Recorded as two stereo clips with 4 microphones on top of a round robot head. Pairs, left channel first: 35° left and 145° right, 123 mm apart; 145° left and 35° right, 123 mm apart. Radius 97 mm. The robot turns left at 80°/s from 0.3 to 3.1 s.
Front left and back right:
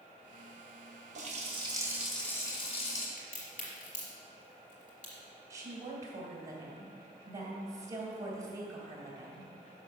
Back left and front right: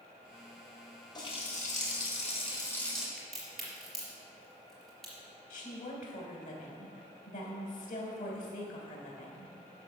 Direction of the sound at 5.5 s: 150° left.